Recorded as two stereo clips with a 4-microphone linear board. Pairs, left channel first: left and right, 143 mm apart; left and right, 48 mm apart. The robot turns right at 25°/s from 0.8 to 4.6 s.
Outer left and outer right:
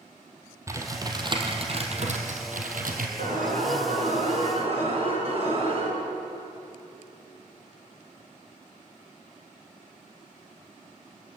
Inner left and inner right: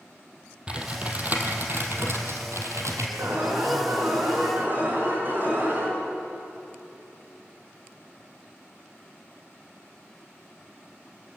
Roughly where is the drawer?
No drawer in this recording.